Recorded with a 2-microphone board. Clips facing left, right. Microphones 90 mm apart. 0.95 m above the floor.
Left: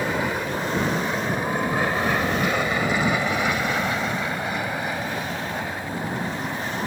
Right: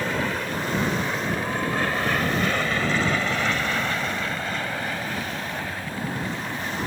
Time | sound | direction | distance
0.0 | an aircraft | 10° left (ahead or behind) | ?